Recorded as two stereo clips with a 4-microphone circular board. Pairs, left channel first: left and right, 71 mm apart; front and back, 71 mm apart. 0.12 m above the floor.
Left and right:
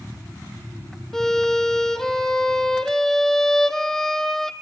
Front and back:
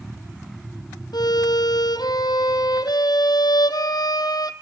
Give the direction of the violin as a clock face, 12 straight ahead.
12 o'clock.